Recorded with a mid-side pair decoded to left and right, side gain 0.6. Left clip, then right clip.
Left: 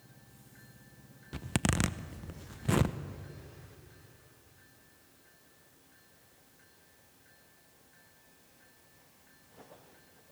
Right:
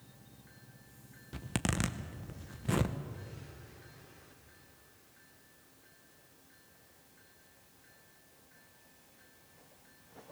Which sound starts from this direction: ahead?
A zipper, at 1.3 s.